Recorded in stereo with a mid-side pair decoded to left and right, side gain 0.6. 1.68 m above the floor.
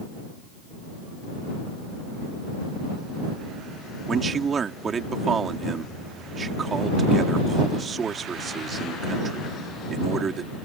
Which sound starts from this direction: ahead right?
A man speaking, at 4.1 s.